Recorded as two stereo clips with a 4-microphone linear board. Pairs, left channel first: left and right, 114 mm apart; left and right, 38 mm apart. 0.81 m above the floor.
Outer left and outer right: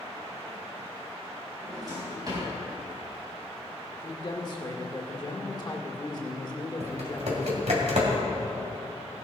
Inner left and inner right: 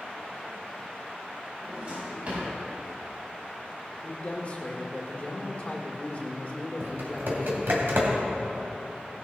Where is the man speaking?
40° left (ahead or behind), 1.8 m.